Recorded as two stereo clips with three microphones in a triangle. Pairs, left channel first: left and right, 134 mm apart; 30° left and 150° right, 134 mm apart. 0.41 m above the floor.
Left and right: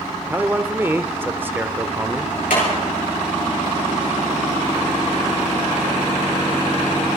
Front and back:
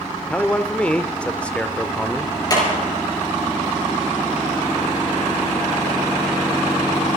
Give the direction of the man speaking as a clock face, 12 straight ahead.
1 o'clock.